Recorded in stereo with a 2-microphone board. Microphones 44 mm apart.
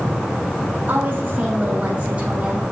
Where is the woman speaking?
45° right (ahead or behind), 5 m; by 2.6 s 25° right (ahead or behind), 3.5 m.